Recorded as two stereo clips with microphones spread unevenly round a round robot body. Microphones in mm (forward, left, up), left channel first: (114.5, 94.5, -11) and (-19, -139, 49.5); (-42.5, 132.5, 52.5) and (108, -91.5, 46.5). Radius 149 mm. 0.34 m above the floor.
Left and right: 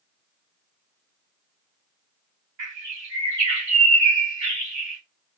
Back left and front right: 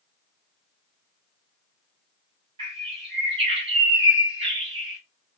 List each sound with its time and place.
2.6 s a bird: 120° right, 1.7 m